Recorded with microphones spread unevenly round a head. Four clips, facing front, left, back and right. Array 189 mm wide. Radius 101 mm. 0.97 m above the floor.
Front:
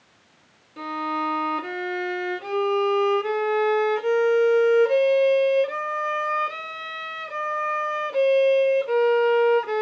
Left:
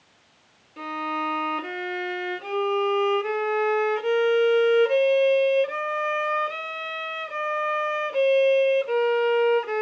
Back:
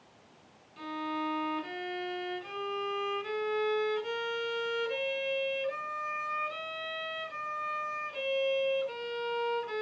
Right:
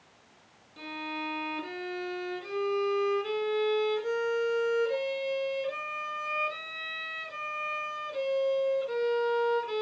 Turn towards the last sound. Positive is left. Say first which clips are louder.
# left 9 dB, front 8 dB
turn(degrees=25)